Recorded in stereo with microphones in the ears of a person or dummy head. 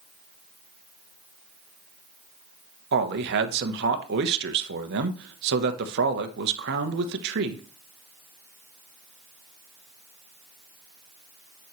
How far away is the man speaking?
About 0.9 m.